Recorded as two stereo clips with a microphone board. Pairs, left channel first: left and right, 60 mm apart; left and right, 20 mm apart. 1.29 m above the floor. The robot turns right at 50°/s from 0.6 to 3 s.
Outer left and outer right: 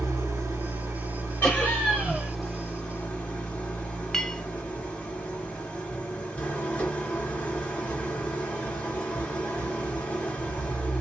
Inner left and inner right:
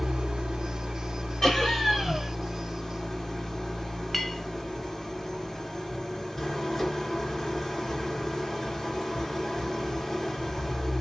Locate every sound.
0.0 s an engine running: 90° right, 1.2 m; by 11.0 s 30° left, 1.2 m
1.4 s laughter: 155° left, 0.9 m; by 2.3 s 155° right, 0.9 m
4.1 s a clink: 5° left (ahead or behind), 0.5 m